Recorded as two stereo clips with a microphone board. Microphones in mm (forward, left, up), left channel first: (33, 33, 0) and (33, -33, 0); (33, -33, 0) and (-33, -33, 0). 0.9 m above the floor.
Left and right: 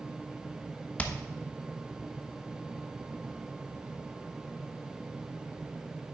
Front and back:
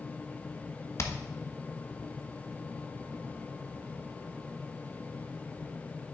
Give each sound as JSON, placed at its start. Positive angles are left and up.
{"t": 1.0, "sound": "hammering", "azimuth_deg": 25, "distance_m": 0.9}